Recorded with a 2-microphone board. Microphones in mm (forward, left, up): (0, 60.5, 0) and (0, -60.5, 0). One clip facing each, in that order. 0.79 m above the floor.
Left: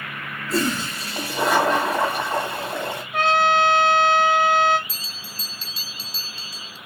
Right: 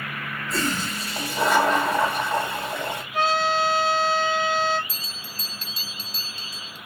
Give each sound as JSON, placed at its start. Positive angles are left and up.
{"t": 0.5, "sound": "a toilet flushing", "side_deg": 5, "distance_m": 2.5}
{"t": 3.1, "sound": "a trumpet", "side_deg": 60, "distance_m": 1.3}
{"t": 4.9, "sound": "a bell", "side_deg": -45, "distance_m": 0.9}